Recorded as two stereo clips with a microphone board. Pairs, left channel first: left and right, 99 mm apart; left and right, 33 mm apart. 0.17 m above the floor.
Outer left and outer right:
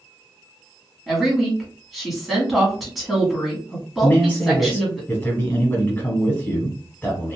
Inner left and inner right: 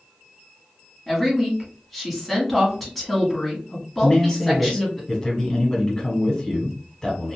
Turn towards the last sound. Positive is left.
turn(degrees=20)  # may be behind; listen again after turning